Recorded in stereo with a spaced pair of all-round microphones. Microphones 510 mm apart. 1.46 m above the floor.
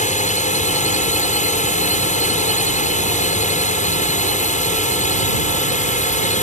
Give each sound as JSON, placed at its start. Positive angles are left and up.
{"t": 0.0, "sound": "a drone", "side_deg": 15}